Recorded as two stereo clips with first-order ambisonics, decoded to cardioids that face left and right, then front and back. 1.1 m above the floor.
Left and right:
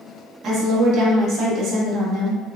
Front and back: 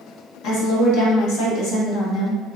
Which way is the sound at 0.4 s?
35° right.